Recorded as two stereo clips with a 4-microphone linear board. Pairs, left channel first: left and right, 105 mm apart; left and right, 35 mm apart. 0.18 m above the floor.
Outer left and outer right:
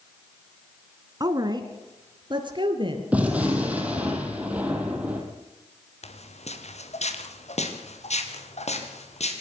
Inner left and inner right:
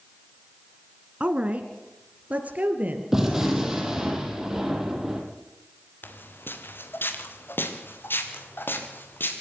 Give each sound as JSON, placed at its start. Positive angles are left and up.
{"t": 1.2, "sound": "a woman speaking", "side_deg": -35, "distance_m": 1.7}
{"t": 3.1, "sound": "a gunshot", "side_deg": -15, "distance_m": 3.0}
{"t": 6.0, "sound": "footsteps", "side_deg": 70, "distance_m": 2.5}